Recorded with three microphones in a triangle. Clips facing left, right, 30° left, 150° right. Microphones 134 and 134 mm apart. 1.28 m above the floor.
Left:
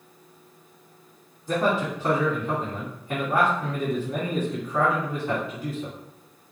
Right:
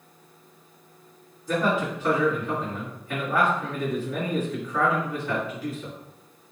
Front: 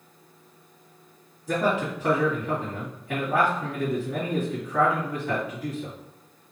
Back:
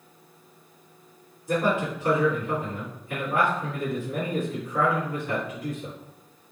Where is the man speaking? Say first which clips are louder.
Left 1 dB, even; 25° left, 2 m.